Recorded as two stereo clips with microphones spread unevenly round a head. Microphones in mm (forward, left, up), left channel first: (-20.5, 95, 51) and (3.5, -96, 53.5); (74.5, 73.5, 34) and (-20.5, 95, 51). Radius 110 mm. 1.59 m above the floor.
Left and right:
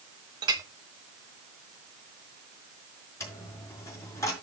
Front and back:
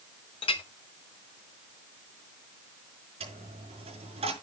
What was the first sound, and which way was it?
A clink, 20° right.